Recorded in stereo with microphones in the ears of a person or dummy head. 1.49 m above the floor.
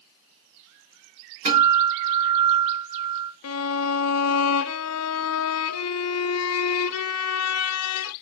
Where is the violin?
85° left, 0.5 m.